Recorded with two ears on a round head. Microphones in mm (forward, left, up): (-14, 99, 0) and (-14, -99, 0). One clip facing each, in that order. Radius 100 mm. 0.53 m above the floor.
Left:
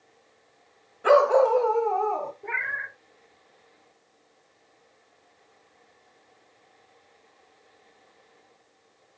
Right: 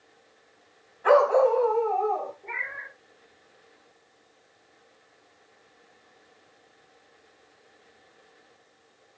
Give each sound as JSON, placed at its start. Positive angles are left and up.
{"t": 1.0, "sound": "a dog barking", "side_deg": 45, "distance_m": 1.6}
{"t": 2.4, "sound": "a cat meowing", "side_deg": 80, "distance_m": 2.0}